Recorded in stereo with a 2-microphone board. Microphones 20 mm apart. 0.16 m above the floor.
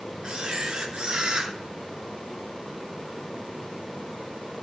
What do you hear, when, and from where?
0.2 s a camera shutter: 50° right (ahead or behind), 3 m